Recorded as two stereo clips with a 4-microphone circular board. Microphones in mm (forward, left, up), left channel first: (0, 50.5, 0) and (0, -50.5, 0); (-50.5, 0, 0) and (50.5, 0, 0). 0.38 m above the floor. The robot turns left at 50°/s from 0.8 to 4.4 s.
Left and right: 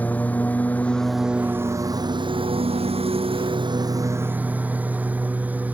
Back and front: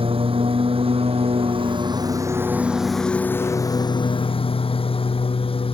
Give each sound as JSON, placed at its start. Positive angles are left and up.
{"t": 0.0, "sound": "a lawn mower", "azimuth_deg": 15}